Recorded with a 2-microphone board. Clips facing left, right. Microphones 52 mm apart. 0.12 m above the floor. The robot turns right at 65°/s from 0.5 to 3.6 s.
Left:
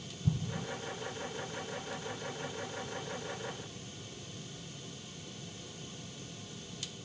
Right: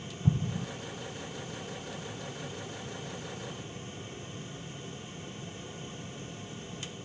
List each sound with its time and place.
0.2 s an explosion: 45° right (ahead or behind), 0.9 m; by 0.7 s 50° right (ahead or behind), 0.9 m